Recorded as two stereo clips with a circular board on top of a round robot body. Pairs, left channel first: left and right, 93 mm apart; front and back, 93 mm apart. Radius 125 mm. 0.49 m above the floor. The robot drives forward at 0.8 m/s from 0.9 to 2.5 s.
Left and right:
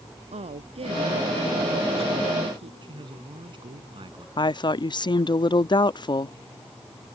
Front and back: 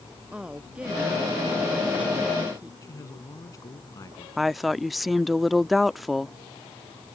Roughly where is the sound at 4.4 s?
Left.